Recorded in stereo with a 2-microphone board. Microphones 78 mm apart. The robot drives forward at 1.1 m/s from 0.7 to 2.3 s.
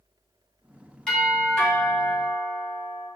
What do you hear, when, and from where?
1.1 s a doorbell: 10° left (ahead or behind), 1.9 m; by 3.1 s 5° left (ahead or behind), 2.5 m